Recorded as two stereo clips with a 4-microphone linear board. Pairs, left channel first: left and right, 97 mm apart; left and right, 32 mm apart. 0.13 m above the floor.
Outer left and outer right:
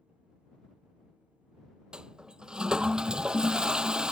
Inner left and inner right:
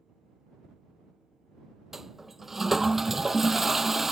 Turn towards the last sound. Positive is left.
turn(degrees=-10)  # may be behind; listen again after turning